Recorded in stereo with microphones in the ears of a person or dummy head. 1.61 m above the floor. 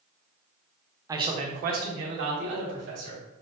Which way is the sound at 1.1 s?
15° right (ahead or behind).